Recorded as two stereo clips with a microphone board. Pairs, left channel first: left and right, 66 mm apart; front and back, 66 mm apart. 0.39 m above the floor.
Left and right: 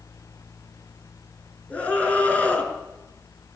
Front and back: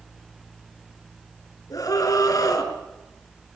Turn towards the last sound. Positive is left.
turn(degrees=25)